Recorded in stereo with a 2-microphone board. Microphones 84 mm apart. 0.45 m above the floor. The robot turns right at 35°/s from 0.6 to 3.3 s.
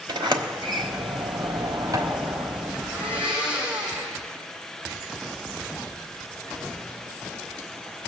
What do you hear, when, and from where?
0.1 s a sliding door: 70° right (ahead or behind), 1.2 m; by 2.7 s 30° right (ahead or behind), 1.2 m
2.8 s a blender: 25° right (ahead or behind), 4 m; by 4.2 s 10° right (ahead or behind), 4 m